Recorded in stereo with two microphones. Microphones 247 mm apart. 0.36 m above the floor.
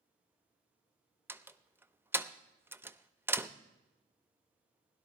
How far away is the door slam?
About 0.5 m.